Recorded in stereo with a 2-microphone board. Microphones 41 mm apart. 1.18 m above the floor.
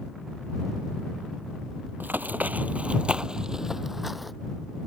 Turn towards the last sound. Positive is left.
turn(degrees=0)  # may be behind; listen again after turning